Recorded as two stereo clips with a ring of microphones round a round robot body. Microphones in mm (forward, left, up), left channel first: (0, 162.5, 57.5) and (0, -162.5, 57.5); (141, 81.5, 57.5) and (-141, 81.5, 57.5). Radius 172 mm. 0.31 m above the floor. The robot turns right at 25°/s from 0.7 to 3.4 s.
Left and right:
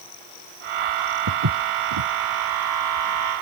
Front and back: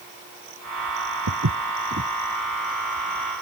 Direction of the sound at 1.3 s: 135° right.